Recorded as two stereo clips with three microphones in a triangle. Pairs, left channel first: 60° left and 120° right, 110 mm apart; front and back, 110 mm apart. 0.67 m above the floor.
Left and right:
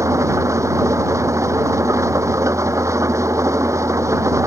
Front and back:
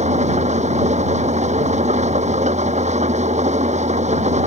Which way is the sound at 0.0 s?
175° left.